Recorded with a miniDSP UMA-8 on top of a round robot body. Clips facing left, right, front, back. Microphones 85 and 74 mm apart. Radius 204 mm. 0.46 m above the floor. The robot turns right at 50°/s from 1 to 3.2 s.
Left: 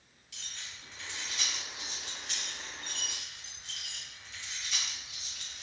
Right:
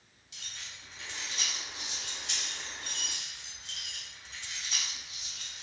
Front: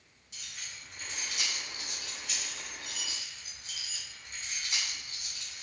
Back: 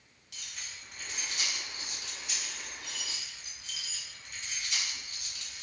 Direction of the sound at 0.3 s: 165° right.